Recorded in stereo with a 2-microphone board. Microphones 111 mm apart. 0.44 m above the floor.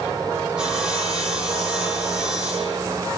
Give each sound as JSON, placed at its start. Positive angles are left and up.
{"t": 0.6, "sound": "sawing", "side_deg": -10, "distance_m": 7.5}